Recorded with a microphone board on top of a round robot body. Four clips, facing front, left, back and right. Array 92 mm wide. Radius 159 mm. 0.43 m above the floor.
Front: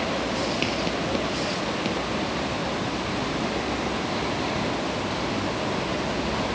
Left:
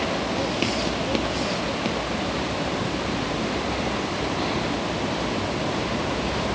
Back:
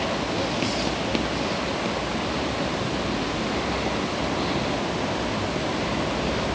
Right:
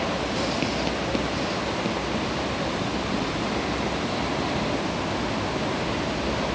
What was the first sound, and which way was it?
Only background noise.